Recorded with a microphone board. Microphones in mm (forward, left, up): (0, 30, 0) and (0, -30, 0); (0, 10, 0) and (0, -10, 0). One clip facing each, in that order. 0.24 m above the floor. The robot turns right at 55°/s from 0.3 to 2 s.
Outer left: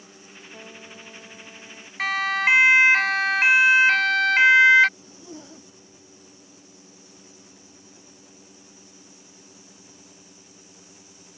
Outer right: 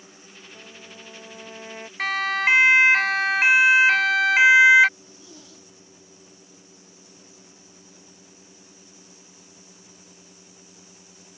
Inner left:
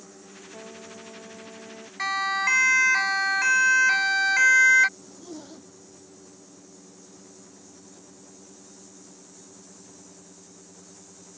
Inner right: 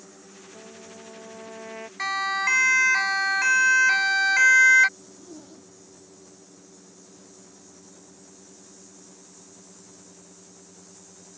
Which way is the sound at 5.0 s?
30° left (ahead or behind).